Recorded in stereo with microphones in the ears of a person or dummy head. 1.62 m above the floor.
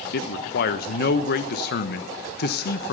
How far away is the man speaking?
About 1.0 m.